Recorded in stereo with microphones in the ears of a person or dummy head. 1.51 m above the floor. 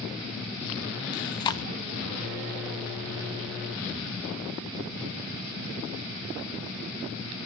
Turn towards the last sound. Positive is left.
turn(degrees=25)  # may be behind; listen again after turning